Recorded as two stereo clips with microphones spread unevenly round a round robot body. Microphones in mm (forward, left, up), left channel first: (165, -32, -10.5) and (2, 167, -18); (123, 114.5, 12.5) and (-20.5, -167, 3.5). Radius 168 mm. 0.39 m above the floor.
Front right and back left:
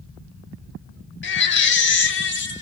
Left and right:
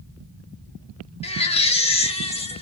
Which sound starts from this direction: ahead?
A baby crying, at 1.2 s.